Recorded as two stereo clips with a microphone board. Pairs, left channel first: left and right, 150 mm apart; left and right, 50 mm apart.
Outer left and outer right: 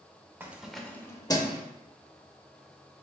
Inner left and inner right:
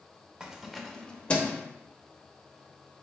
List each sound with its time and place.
0.4 s keys jangling: 15° right (ahead or behind), 0.5 m; by 1.6 s 30° left (ahead or behind), 0.7 m